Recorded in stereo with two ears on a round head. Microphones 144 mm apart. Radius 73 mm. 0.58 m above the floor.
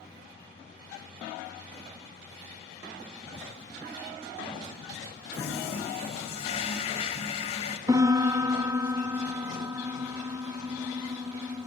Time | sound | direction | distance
5.3 | a toilet flushing | 40° left (ahead or behind) | 2.5 m
7.9 | a piano | 20° right (ahead or behind) | 0.9 m